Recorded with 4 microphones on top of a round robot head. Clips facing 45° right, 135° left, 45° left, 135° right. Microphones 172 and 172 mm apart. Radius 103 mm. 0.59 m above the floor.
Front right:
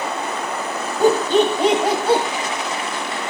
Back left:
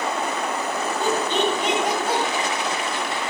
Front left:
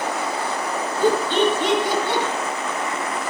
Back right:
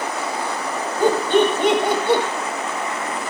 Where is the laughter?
90° right, 4.5 m; by 2.2 s 105° right, 4.5 m.